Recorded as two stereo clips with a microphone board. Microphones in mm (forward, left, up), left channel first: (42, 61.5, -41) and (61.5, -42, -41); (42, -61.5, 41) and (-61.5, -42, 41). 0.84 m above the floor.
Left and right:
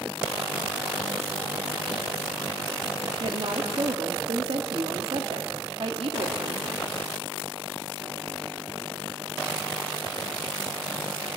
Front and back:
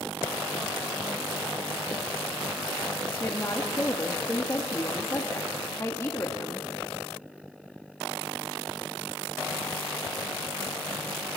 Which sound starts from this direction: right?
A woman speaking, at 3.2 s.